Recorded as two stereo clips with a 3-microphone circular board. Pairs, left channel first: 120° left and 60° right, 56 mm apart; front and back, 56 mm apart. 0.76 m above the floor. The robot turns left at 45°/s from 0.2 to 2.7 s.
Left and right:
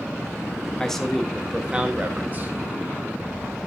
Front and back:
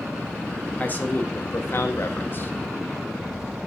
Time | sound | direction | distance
0.8 | a man speaking | 45° left | 1.0 m